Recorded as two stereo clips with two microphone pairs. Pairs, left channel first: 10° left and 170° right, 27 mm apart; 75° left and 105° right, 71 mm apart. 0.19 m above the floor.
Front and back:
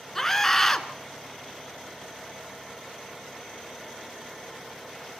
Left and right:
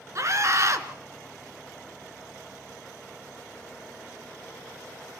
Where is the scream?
70° right, 2 m.